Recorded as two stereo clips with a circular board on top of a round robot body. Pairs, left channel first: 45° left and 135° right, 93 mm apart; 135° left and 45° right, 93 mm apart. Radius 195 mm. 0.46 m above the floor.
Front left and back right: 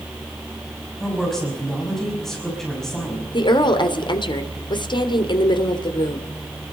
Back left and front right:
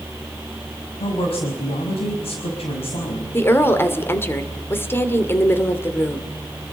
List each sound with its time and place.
1.0 s a woman speaking: 130° left, 5.5 m
3.3 s a woman speaking: 70° left, 2.5 m